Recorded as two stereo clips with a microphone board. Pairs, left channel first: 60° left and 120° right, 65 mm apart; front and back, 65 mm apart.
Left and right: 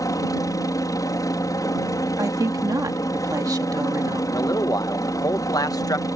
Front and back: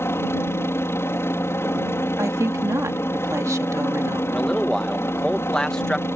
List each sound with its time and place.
0.0 s a helicopter: 45° left
2.2 s a woman speaking: 140° right
4.3 s a man speaking: 80° left